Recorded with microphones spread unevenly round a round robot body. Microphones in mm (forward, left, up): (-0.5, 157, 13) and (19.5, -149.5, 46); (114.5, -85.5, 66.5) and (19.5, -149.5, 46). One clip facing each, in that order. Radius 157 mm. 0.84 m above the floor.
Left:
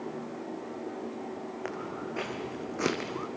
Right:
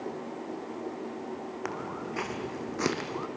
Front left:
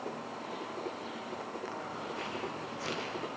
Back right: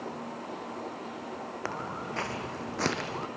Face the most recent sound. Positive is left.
turn(degrees=-175)